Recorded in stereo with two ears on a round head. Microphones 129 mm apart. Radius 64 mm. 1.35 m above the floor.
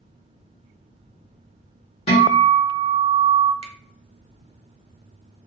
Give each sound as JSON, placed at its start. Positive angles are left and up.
{"t": 2.1, "sound": "a guitar", "side_deg": 45, "distance_m": 1.0}
{"t": 3.6, "sound": "a finger snap", "side_deg": -40, "distance_m": 0.6}